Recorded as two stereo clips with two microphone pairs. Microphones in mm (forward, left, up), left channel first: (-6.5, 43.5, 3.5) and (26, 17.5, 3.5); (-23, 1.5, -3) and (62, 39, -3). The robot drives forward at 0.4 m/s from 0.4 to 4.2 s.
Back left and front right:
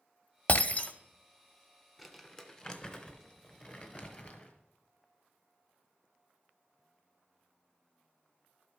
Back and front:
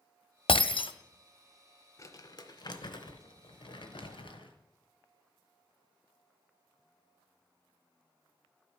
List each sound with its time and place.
0.5 s breaking glass: 165° right, 0.5 m; by 0.9 s 170° right, 0.7 m
2.0 s crumpling: 130° right, 0.5 m; by 4.5 s 165° right, 1.2 m